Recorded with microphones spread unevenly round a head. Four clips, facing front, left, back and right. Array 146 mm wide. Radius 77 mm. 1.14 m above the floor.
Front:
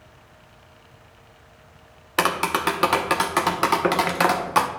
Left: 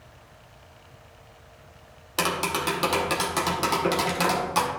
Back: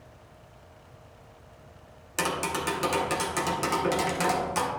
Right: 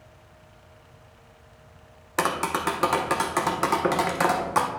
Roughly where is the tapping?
Ahead.